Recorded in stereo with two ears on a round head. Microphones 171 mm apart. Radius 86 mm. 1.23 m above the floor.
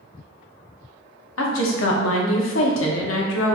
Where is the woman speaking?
80° left, 0.7 m.